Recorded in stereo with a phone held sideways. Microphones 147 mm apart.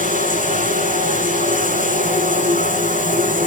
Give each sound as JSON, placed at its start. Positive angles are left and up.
{"t": 0.0, "sound": "running water", "side_deg": -65, "distance_m": 9.0}